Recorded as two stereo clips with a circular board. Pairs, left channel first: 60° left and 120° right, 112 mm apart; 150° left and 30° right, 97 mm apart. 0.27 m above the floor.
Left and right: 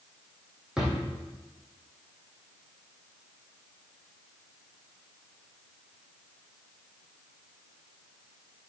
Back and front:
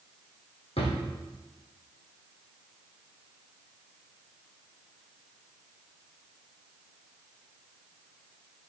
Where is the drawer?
155° left, 3 m.